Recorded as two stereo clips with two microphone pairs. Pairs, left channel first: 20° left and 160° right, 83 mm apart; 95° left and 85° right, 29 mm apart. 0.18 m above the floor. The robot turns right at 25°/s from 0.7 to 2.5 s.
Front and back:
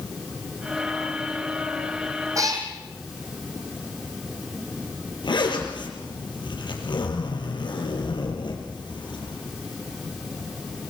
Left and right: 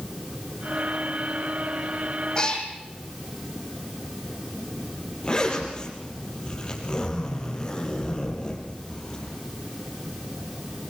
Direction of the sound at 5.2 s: 35° left.